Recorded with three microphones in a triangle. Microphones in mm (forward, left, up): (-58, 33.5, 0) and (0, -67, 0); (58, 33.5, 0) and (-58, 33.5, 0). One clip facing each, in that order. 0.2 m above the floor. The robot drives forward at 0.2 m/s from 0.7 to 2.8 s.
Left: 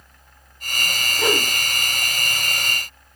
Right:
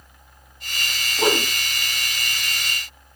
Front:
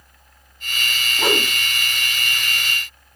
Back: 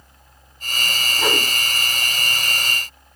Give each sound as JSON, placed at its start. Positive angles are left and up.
{"t": 1.2, "sound": "a whoosh", "azimuth_deg": -75, "distance_m": 0.6}